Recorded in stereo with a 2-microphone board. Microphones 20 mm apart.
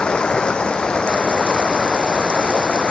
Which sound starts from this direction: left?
Running water, at 0.0 s.